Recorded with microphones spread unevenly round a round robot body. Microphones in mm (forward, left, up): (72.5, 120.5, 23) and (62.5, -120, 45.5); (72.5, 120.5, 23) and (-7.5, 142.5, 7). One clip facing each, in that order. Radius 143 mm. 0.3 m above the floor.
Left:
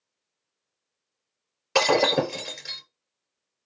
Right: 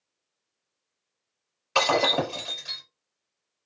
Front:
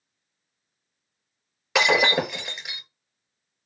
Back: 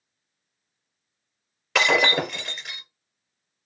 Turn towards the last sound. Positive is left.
turn(degrees=65)